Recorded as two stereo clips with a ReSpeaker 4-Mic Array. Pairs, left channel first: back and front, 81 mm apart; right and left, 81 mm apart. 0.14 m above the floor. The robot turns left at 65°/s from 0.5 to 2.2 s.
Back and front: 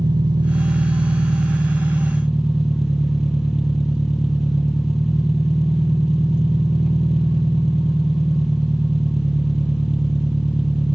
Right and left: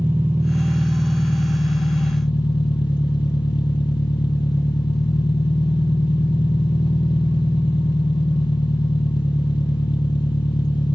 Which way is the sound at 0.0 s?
25° left.